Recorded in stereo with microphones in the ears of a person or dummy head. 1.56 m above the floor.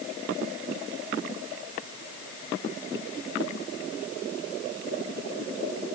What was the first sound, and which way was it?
Only background noise.